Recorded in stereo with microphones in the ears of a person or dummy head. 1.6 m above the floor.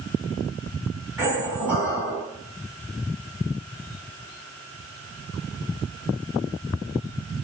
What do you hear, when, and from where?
1.2 s a squeak: 15° right (ahead or behind), 1.7 m